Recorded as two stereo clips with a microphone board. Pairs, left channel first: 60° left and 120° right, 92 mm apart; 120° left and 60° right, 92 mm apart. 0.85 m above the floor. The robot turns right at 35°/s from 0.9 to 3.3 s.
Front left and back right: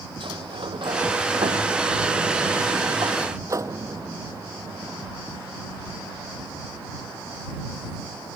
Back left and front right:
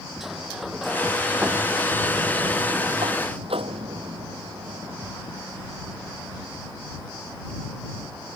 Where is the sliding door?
150° right; by 5.1 s 65° right.